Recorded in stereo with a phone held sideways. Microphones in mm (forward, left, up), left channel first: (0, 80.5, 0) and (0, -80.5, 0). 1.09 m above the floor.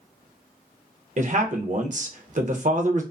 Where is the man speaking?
50° right (ahead or behind), 0.5 m.